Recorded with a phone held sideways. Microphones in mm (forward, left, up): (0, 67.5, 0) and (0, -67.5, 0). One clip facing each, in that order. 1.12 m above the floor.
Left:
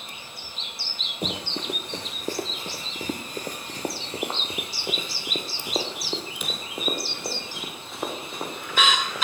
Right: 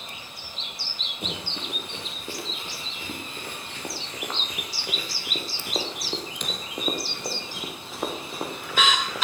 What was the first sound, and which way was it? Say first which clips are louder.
Running footsteps: left 5 dB; 35° left (ahead or behind).